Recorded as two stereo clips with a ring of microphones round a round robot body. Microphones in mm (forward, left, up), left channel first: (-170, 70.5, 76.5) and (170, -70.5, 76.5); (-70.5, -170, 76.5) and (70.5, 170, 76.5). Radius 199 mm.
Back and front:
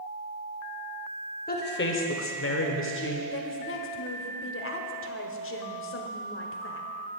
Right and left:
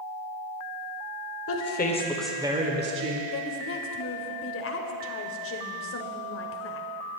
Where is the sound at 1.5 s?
145° right, 1.8 m; by 3.2 s 105° left, 2 m.